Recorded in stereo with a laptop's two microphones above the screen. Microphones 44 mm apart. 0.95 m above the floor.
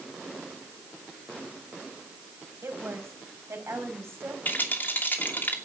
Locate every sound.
2.6 s a woman speaking: 75° right (ahead or behind), 5 m; by 4.3 s 70° right (ahead or behind), 5.5 m
4.5 s a rattle: 45° left (ahead or behind), 2.5 m